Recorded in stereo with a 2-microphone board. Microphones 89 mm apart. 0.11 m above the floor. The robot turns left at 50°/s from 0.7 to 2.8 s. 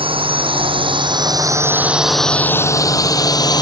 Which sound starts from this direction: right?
A drone, at 0.0 s.